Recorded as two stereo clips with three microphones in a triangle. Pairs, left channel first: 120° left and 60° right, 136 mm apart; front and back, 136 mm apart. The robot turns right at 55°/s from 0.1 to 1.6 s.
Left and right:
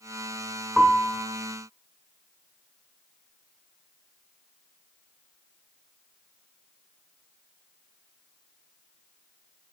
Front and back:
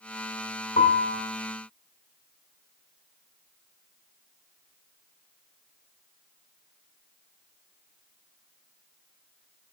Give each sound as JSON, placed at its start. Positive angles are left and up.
{"t": 0.8, "sound": "a piano", "azimuth_deg": 25, "distance_m": 1.4}